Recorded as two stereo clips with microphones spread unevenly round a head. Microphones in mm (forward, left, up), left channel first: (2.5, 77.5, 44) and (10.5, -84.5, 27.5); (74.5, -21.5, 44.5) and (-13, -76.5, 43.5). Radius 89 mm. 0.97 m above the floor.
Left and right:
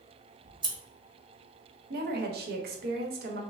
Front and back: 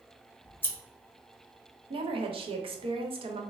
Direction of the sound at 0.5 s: 35° right.